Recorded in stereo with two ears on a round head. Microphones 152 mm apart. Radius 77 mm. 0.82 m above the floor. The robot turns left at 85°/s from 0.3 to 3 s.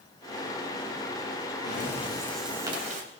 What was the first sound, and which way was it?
Breathing, 65° left.